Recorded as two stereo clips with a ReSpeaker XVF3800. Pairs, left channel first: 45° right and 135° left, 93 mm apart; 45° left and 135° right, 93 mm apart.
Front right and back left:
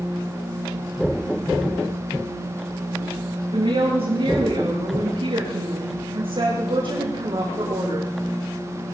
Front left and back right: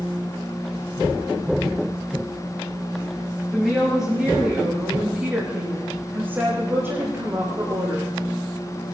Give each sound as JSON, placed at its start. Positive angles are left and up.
{"t": 3.5, "sound": "a woman speaking", "azimuth_deg": 140, "distance_m": 7.0}